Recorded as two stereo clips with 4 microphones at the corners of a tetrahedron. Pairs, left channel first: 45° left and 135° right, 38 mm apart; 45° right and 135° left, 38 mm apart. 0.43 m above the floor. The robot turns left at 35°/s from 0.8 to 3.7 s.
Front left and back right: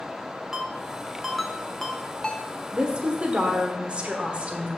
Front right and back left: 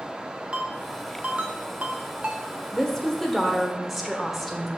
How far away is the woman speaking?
About 1.1 m.